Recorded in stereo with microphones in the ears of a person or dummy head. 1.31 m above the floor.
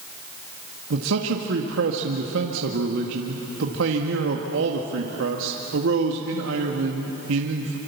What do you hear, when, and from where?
0.9 s a man speaking: 70° right (ahead or behind), 1.7 m